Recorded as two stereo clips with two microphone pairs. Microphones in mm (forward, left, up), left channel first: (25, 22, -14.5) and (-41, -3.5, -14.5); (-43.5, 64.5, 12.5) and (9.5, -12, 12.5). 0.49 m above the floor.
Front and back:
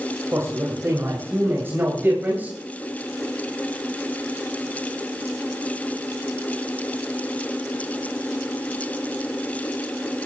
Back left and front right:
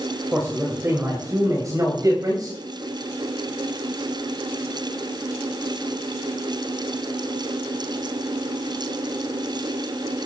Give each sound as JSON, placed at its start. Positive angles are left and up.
{"t": 0.3, "sound": "a man speaking", "azimuth_deg": -120, "distance_m": 3.0}